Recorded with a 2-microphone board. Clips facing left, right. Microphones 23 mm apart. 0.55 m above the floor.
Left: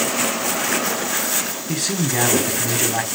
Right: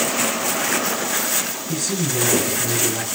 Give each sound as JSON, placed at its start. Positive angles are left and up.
{"t": 1.7, "sound": "a man speaking", "side_deg": 65, "distance_m": 5.0}